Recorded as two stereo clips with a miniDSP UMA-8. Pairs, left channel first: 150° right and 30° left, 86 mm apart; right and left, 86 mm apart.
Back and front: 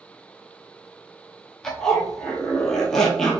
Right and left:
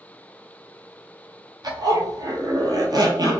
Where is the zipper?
125° left, 0.7 m.